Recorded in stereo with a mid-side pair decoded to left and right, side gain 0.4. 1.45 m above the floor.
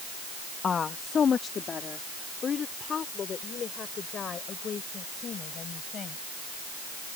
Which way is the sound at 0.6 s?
50° left.